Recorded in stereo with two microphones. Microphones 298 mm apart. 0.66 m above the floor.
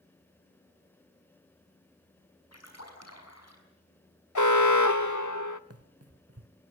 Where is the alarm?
75° left (ahead or behind), 0.9 m.